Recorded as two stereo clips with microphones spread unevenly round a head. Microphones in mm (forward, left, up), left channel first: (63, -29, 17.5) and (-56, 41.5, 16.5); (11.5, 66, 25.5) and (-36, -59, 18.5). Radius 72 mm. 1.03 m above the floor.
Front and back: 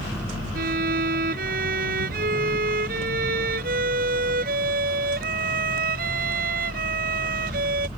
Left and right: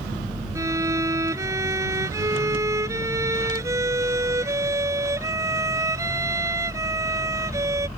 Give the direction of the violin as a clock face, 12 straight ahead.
6 o'clock.